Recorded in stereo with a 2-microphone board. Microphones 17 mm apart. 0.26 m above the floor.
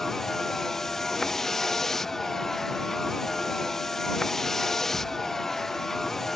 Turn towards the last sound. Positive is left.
turn(degrees=15)  # may be behind; listen again after turning